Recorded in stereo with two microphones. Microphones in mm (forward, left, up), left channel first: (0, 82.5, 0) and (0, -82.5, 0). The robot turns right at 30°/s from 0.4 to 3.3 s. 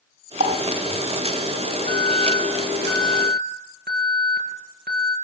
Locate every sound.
0.4 s a running tap: 55° right (ahead or behind), 1.5 m; by 1.2 s 60° right (ahead or behind), 1.5 m
1.9 s an alarm: 115° right, 7.5 m; by 5.2 s 70° right, 7.5 m